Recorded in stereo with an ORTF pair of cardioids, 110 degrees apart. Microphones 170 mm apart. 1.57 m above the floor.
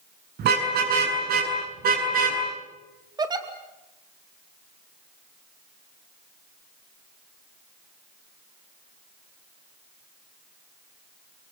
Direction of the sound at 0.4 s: 65° right.